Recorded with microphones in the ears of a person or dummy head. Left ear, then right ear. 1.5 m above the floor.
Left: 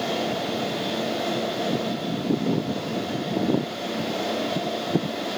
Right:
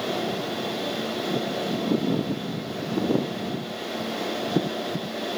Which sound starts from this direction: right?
A fan, at 0.0 s.